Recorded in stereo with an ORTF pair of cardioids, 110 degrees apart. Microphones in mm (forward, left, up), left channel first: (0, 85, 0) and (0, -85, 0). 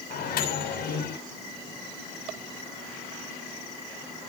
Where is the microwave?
65° left, 7 m.